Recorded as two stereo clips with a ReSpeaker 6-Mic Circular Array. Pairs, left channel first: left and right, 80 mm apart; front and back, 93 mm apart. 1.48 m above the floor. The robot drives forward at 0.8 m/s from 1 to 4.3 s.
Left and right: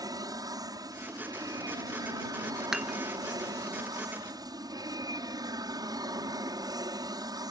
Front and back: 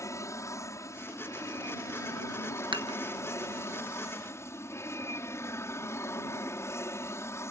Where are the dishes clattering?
175° right.